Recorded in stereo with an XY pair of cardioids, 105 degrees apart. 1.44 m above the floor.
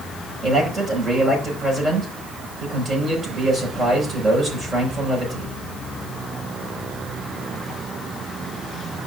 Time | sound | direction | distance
0.4 | a man speaking | 30° right | 5 m